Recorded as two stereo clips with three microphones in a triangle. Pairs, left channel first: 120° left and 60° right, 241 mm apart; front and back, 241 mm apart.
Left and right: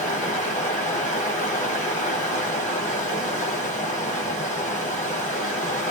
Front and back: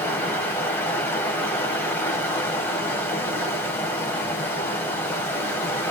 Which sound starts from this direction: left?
Running water, at 0.0 s.